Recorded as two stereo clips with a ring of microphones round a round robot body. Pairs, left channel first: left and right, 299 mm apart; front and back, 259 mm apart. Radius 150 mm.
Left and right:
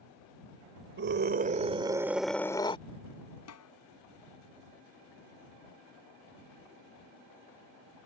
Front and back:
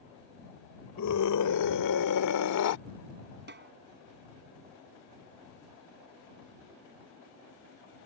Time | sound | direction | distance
1.0 | a scream | 35° right | ?
3.5 | a snare drum | 130° left | ?